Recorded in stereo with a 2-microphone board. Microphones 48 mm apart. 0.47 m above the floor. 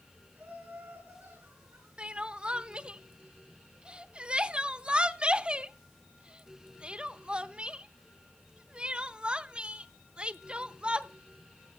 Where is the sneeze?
No sneeze in this recording.